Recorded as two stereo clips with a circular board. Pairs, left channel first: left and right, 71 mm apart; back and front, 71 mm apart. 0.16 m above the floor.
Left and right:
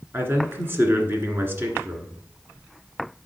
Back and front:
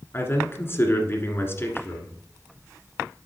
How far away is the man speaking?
About 1.5 m.